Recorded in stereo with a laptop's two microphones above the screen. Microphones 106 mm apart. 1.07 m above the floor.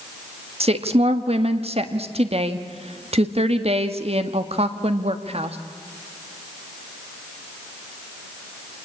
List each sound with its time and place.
0.6 s a woman speaking: 70° right (ahead or behind), 1.8 m